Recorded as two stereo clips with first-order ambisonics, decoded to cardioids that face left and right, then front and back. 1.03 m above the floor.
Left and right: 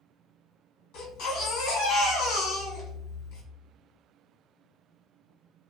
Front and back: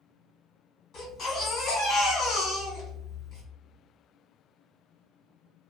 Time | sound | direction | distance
0.9 | a baby crying | 60° left | 1.3 m